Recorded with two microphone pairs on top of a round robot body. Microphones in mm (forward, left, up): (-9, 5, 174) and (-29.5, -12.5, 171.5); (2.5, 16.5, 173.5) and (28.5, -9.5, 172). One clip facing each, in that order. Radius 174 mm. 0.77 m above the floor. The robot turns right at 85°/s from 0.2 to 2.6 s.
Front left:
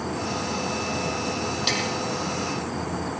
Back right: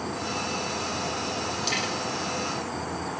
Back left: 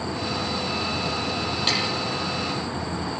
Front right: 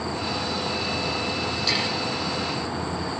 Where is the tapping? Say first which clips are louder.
Front left 3 dB, back left 1 dB; 95° left, 9.5 m; by 1.8 s 105° left, 9.5 m.